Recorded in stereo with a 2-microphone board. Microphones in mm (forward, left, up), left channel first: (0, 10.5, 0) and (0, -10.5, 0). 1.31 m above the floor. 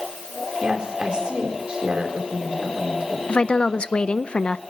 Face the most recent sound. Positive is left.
turn(degrees=60)  # may be behind; listen again after turning